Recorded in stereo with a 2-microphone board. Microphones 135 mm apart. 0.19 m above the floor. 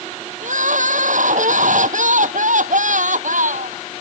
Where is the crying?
70° right (ahead or behind).